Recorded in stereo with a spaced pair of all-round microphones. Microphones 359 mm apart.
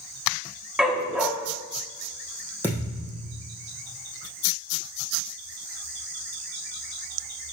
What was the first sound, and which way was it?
A dog barking, centre (ahead or behind).